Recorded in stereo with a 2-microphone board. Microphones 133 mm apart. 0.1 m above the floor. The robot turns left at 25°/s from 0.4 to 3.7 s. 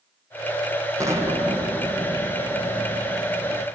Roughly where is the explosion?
Behind right.